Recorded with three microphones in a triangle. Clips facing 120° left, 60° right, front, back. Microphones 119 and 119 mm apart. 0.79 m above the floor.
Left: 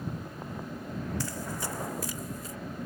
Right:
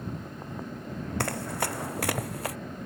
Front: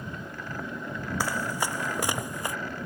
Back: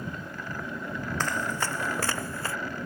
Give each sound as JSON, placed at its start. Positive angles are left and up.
{"t": 1.2, "sound": "running footsteps", "azimuth_deg": -80}